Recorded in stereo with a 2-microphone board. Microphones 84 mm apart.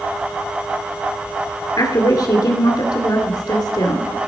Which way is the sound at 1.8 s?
50° left (ahead or behind).